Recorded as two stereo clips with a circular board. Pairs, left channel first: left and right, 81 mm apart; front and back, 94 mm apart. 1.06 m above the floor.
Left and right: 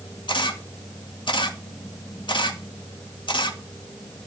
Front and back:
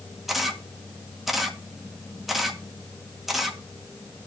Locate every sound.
0.3 s a camera shutter: 90° left, 1.8 m